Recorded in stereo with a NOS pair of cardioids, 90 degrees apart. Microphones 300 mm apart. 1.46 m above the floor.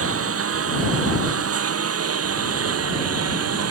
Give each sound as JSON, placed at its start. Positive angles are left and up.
{"t": 0.0, "sound": "a lawn mower", "azimuth_deg": -50}